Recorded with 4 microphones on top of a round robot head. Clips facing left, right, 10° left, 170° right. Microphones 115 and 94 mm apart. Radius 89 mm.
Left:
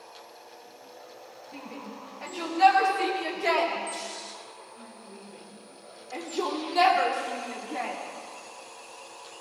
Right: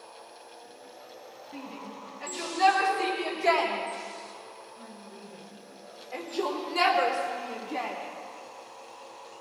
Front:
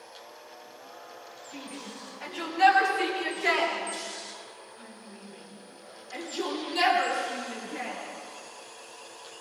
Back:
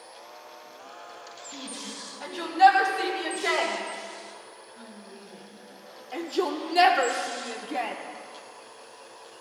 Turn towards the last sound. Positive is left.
turn(degrees=180)